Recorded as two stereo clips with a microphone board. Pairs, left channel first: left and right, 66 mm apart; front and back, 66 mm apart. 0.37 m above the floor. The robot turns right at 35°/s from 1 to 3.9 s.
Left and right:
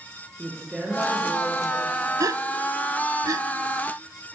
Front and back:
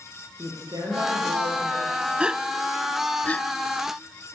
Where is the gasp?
105° right, 0.5 m; by 3.5 s 65° right, 0.5 m.